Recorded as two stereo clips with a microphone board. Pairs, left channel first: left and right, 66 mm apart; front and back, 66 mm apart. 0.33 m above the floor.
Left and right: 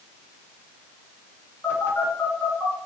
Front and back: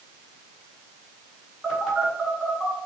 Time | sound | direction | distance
1.6 | a phone buzzing | 95° left | 1.9 m